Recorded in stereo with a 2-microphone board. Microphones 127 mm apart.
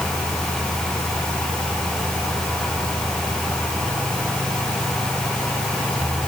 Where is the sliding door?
I don't hear a sliding door.